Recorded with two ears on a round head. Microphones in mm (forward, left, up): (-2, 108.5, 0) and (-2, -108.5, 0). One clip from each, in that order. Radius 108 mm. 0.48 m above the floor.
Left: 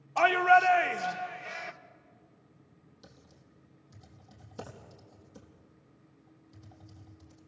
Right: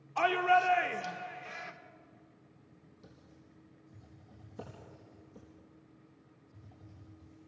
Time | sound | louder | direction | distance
0.2 | a shout | left 5 dB | 15° left (ahead or behind) | 1.0 m
3.0 | typing on a keyboard | left 3 dB | 45° left (ahead or behind) | 4.5 m